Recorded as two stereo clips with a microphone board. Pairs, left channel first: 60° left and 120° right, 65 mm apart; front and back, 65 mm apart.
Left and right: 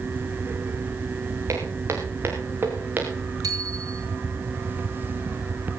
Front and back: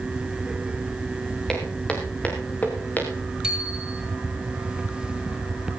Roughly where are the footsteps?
Right.